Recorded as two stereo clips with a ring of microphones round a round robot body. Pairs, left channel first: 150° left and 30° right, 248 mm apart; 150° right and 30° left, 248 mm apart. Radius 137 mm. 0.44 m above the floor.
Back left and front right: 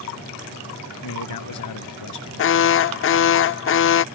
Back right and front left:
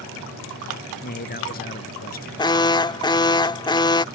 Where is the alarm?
140° left.